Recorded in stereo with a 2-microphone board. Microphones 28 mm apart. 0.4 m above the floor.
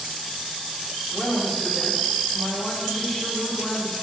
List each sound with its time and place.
1.1 s a woman speaking: 15° left (ahead or behind), 6.5 m